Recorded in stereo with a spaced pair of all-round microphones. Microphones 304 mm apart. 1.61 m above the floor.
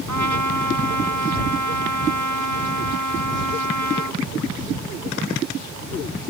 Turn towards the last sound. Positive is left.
turn(degrees=-65)  # may be behind; listen again after turning